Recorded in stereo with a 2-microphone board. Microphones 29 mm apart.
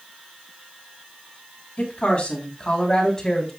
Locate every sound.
1.8 s a woman speaking: 45° left (ahead or behind), 4 m; by 3.5 s 10° left (ahead or behind), 4 m